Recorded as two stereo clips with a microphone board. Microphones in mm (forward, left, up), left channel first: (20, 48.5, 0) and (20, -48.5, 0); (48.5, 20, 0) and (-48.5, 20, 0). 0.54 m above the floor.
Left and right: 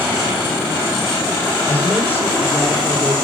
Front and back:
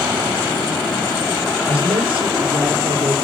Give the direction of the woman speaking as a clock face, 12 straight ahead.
7 o'clock.